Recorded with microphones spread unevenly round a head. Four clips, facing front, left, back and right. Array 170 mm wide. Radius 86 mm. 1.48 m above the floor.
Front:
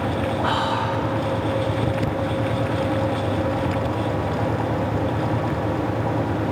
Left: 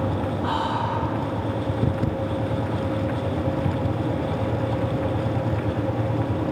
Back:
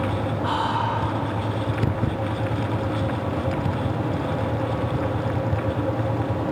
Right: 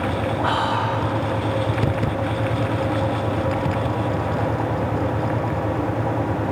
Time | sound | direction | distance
0.4 | whispering | 45° right | 3 m